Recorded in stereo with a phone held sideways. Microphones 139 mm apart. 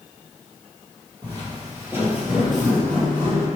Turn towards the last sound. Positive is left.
turn(degrees=20)  # may be behind; listen again after turning